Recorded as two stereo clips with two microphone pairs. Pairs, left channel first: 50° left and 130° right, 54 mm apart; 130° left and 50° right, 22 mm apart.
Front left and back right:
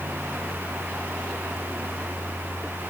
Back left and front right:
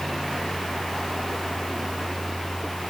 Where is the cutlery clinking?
I don't hear cutlery clinking.